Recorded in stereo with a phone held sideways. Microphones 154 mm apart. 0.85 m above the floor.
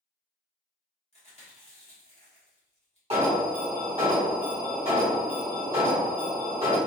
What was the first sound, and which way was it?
Chewing, 40° left (ahead or behind).